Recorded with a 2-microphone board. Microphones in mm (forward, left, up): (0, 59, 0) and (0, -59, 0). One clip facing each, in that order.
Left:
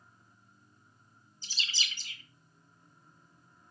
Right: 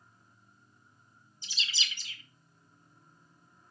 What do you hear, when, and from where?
1.4 s a bird: 40° left (ahead or behind), 2.5 m